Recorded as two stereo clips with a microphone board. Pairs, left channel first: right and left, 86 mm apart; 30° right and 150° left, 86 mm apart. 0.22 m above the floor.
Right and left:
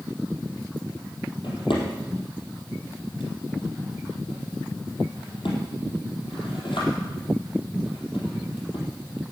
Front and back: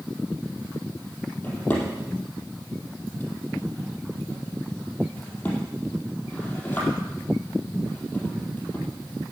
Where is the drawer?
105° right, 4.5 m.